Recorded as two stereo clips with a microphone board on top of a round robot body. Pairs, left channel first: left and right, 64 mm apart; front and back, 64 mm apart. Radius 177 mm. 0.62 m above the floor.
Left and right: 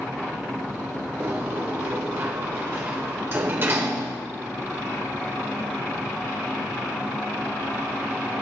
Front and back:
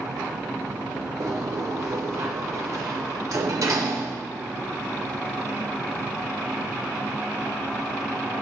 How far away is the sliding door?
About 1.0 m.